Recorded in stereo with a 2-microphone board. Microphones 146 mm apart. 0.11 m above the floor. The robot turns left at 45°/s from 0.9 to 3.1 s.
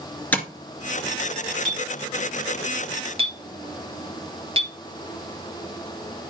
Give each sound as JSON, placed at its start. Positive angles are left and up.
{"t": 0.3, "sound": "tapping", "side_deg": 10, "distance_m": 1.8}
{"t": 1.6, "sound": "a clink", "side_deg": 5, "distance_m": 1.5}